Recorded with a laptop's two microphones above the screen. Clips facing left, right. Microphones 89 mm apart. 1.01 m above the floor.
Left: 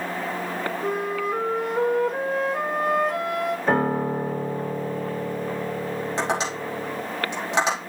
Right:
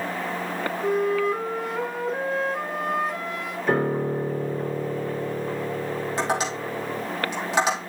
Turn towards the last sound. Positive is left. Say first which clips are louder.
# even
turn(degrees=20)  # may be behind; listen again after turning